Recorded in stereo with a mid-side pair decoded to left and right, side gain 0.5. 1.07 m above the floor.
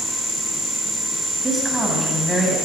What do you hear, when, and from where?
1.4 s a woman speaking: 20° right, 8.5 m; by 2.6 s 15° right, 9.5 m